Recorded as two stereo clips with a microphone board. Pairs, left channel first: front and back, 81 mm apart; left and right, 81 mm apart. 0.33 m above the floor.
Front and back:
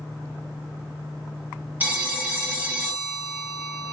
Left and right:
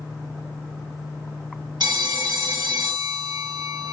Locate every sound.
1.8 s a phone ringing: 115° right, 1.2 m